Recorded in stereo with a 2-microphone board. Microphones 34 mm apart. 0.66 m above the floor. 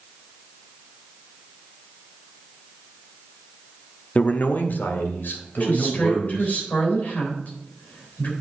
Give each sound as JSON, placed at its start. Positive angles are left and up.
{"t": 4.2, "sound": "a man speaking", "side_deg": 50, "distance_m": 0.9}
{"t": 5.6, "sound": "a woman speaking", "side_deg": 50, "distance_m": 3.5}